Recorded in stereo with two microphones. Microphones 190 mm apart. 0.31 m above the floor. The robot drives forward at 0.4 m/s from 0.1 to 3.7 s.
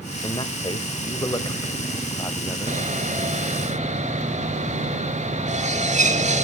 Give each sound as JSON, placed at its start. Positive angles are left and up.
{"t": 0.2, "sound": "a man speaking", "side_deg": 25, "distance_m": 1.0}
{"t": 2.7, "sound": "sawing", "side_deg": -40, "distance_m": 1.4}